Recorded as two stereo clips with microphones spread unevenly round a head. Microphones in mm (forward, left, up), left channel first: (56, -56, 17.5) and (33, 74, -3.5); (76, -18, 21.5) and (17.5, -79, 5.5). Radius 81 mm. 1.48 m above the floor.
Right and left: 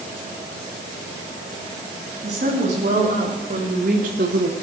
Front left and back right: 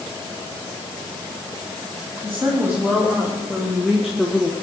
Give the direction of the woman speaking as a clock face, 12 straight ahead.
7 o'clock.